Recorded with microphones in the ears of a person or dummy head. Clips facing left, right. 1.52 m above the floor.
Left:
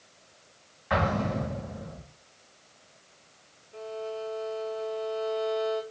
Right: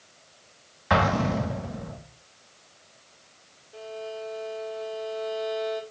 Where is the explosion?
70° right (ahead or behind), 2.5 m.